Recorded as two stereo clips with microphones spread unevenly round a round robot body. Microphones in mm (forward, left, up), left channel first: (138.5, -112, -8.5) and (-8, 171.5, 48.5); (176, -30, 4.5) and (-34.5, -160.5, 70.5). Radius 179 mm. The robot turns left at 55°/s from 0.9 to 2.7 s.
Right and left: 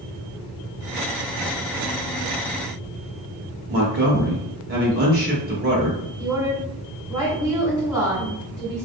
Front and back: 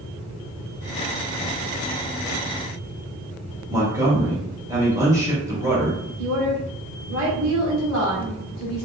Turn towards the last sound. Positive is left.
turn(degrees=-160)